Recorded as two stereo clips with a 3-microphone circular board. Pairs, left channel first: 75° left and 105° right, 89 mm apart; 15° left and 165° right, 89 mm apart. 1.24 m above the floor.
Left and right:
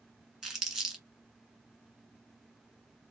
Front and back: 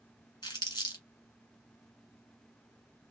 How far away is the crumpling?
About 1.9 m.